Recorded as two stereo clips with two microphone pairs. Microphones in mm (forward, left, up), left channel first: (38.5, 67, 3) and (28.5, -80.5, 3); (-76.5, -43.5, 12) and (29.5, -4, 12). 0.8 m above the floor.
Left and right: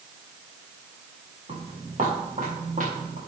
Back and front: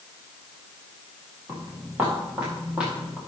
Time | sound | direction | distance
1.5 | footsteps | 55° right | 5 m